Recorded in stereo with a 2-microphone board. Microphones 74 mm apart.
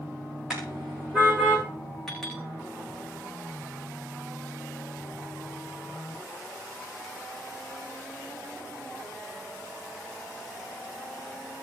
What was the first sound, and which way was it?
A car horn, 10° right (ahead or behind).